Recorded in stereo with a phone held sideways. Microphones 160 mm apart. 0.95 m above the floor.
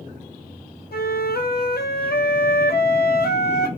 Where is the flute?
80° left, 0.7 m.